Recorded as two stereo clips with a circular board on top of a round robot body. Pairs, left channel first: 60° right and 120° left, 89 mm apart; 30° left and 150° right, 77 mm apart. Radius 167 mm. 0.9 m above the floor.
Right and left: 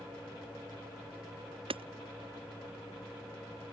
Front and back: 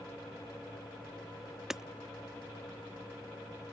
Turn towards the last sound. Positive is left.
turn(degrees=125)